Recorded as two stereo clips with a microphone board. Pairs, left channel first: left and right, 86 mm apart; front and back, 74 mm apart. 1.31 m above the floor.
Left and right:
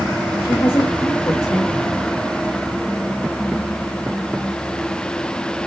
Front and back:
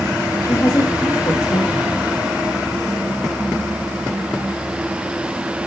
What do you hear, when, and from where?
0.4 s a woman speaking: 45° left, 1.9 m